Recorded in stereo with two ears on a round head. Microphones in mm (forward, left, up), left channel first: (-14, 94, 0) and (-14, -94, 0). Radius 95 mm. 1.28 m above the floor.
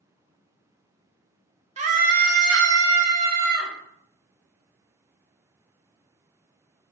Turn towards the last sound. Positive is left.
turn(degrees=-35)  # may be behind; listen again after turning